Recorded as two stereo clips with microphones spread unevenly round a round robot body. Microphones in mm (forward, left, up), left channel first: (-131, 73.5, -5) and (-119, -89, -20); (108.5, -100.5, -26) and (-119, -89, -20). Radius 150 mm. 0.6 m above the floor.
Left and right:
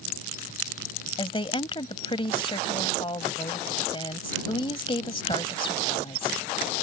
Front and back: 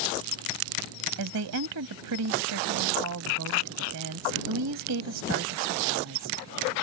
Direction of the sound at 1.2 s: 150° left.